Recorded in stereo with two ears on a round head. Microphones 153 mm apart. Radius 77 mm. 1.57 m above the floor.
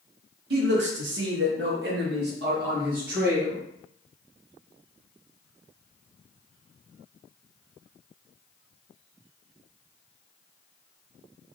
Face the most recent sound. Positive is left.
turn(degrees=-50)  # may be behind; listen again after turning